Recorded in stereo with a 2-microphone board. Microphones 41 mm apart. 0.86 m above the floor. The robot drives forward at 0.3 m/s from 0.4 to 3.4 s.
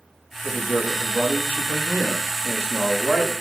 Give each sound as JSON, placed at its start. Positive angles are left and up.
{"t": 0.4, "sound": "a man speaking", "side_deg": -55, "distance_m": 1.0}